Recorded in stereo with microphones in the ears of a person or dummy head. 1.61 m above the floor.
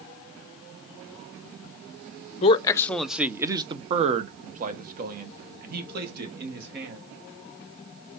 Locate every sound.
2.4 s a man speaking: 30° left (ahead or behind), 0.7 m; by 7.0 s 60° right (ahead or behind), 2.5 m